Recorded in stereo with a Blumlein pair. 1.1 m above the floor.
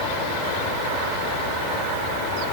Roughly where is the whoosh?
I don't hear a whoosh.